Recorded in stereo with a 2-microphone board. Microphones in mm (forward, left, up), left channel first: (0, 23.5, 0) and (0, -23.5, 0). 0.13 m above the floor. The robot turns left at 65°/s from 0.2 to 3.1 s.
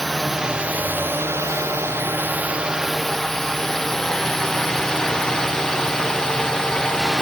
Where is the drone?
Centre (ahead or behind); by 7.2 s 10° left (ahead or behind).